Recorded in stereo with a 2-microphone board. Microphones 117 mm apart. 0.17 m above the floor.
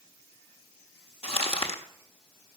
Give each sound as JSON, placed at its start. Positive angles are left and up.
{"t": 1.2, "sound": "crumpling", "side_deg": 65, "distance_m": 1.2}